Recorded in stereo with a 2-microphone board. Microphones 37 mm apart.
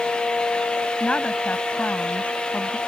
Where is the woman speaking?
35° left (ahead or behind); by 2.8 s 50° left (ahead or behind).